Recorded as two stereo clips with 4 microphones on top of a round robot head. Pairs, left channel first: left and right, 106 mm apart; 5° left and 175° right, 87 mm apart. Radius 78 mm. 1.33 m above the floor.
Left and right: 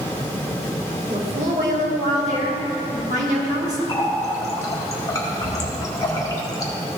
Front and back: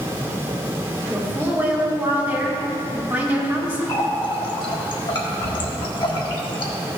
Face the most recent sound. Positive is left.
turn(degrees=30)